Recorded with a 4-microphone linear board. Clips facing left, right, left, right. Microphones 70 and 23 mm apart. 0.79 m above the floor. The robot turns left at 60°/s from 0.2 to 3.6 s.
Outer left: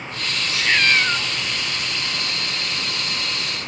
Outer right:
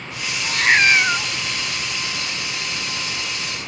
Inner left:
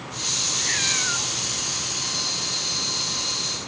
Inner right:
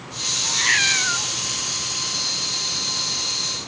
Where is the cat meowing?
120° right, 0.5 m; by 1.3 s 170° right, 0.5 m.